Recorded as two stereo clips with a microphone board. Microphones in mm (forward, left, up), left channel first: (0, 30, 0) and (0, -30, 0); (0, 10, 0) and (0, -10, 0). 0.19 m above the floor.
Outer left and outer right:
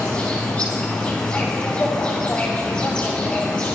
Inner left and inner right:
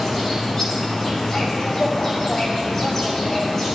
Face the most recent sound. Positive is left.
turn(degrees=25)  # may be behind; listen again after turning